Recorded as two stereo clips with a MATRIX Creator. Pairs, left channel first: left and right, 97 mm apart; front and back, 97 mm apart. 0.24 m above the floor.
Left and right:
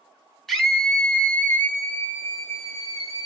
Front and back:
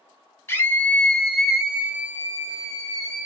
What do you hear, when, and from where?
0.5 s a scream: 5° left, 1.2 m; by 3.3 s 140° left, 1.7 m